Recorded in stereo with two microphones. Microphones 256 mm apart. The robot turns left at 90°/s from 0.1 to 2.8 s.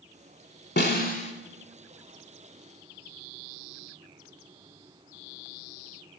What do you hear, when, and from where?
0.8 s a snare drum: 85° left, 0.7 m; by 1.3 s 35° left, 0.7 m